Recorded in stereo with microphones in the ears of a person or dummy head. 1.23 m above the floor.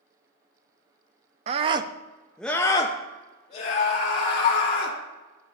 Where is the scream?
40° right (ahead or behind), 0.6 m; by 5.0 s 35° left (ahead or behind), 1.6 m.